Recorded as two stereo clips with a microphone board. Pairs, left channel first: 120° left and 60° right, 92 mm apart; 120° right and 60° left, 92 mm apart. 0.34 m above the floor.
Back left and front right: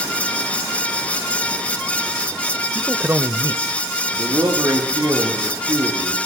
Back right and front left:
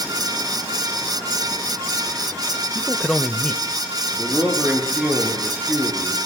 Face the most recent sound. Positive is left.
turn(degrees=-15)